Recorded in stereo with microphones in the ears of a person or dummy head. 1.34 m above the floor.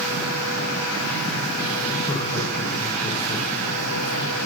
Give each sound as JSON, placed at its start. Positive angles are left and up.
{"t": 2.1, "sound": "laughter", "side_deg": 15, "distance_m": 5.0}